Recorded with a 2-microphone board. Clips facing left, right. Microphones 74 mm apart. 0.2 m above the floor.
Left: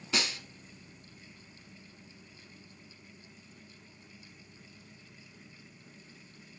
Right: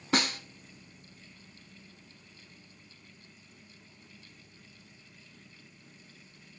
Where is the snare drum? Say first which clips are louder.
Right 5 dB; 50° right (ahead or behind), 0.8 m.